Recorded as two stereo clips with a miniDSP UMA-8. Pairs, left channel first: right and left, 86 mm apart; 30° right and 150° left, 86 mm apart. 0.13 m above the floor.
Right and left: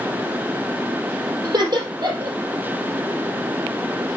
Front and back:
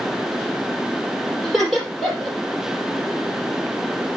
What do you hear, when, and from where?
1.4 s laughter: 55° left, 4 m